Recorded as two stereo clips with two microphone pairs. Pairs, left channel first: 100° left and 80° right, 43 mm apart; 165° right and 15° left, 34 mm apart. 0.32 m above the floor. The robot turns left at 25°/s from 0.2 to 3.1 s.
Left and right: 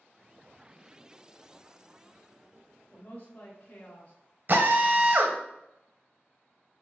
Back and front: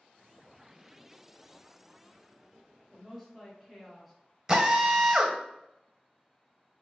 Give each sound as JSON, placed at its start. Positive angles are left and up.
{"t": 2.9, "sound": "a woman speaking", "azimuth_deg": 100, "distance_m": 1.1}
{"t": 4.5, "sound": "a drill", "azimuth_deg": -55, "distance_m": 0.8}